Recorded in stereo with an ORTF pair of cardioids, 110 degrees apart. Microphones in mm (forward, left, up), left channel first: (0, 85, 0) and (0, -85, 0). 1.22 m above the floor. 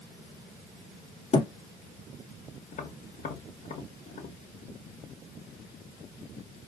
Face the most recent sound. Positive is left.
turn(degrees=50)